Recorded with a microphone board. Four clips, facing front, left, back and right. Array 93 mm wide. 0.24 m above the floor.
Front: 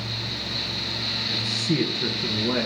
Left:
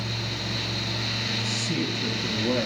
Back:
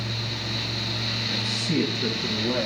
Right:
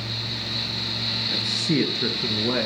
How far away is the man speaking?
About 3 m.